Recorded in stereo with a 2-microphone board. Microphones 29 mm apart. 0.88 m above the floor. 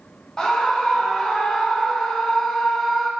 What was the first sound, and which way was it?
A scream, 25° left (ahead or behind).